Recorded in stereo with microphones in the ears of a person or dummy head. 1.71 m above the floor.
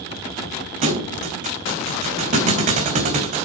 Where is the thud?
40° right (ahead or behind), 3 m.